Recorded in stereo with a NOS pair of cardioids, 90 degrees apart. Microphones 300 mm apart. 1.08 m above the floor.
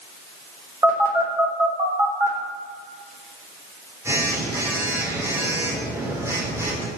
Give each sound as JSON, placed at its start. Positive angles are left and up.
{"t": 0.8, "sound": "a phone buzzing", "azimuth_deg": -10, "distance_m": 3.5}